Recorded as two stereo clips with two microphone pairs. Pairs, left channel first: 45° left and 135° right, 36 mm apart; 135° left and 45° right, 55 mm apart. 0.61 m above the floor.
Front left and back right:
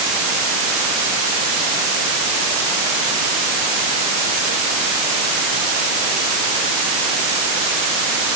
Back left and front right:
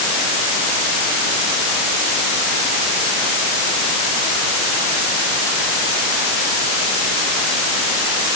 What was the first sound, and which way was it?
Only background noise.